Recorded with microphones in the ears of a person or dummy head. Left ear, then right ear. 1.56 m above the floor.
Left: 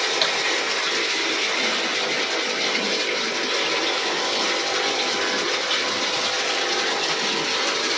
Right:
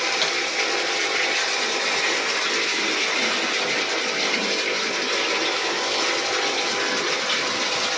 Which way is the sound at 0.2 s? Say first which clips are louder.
Left 3 dB; 5° left (ahead or behind).